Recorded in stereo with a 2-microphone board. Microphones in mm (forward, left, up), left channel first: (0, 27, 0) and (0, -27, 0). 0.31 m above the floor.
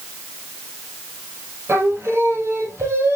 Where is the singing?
60° right (ahead or behind), 4 m.